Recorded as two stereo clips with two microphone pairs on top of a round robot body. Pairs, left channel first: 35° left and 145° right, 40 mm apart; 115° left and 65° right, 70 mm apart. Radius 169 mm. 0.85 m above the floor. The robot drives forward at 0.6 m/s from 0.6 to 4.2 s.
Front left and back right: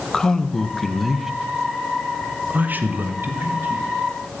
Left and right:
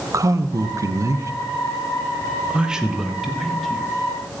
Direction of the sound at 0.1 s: 45° right.